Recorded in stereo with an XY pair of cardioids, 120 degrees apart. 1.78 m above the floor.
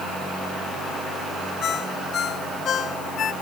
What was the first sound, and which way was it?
A ringtone, 50° left.